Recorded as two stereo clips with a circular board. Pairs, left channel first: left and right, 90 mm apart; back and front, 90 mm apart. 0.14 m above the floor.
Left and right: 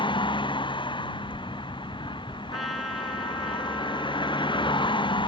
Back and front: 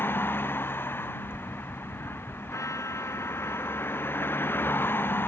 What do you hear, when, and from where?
0.0 s a vehicle: 115° left
2.5 s a trumpet: straight behind